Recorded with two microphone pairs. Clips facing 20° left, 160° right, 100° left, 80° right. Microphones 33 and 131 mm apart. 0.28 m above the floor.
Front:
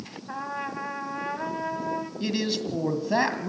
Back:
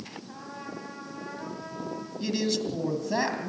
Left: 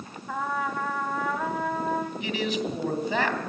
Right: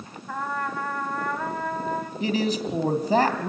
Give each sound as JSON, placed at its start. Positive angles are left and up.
{"t": 0.3, "sound": "a trumpet", "azimuth_deg": 10, "distance_m": 2.5}
{"t": 2.2, "sound": "a man speaking", "azimuth_deg": -45, "distance_m": 2.5}